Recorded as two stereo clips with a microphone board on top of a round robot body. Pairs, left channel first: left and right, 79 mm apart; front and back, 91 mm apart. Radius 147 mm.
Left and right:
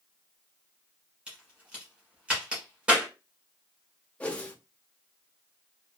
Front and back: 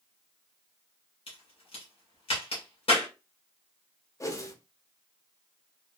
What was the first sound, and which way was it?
A crack, 15° right.